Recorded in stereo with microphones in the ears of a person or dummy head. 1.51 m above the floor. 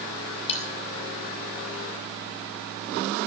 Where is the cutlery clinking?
35° left (ahead or behind), 3 m.